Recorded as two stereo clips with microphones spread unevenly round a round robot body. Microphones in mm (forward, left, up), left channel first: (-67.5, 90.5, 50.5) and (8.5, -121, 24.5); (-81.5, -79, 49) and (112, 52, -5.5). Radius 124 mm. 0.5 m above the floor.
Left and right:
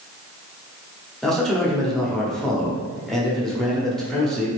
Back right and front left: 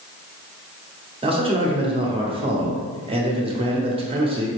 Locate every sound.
1.2 s a man speaking: 15° left, 1.0 m